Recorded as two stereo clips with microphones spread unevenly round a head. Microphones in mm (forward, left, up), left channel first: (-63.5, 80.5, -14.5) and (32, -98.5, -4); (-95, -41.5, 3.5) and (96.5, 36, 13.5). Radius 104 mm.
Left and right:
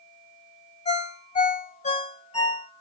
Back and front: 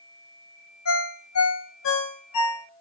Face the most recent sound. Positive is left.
turn(degrees=180)